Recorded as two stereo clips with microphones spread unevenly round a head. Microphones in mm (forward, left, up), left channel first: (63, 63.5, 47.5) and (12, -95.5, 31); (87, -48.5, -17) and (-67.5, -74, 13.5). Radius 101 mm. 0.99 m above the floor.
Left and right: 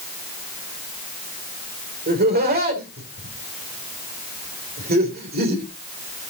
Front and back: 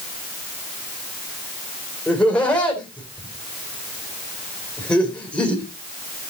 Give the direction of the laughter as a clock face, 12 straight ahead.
2 o'clock.